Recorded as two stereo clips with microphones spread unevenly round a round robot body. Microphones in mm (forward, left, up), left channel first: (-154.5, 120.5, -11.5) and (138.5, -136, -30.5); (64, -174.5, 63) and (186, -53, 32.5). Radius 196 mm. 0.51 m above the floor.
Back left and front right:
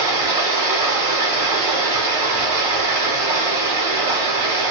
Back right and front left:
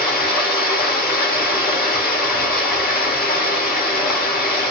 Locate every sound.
0.0 s running water: 120° right, 1.3 m